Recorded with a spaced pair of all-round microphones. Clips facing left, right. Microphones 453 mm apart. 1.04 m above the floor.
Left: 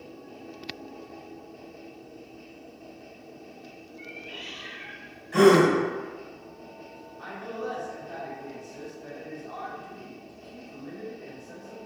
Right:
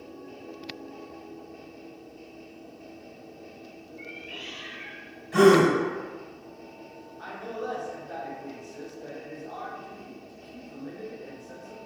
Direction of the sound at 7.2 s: 45° left (ahead or behind).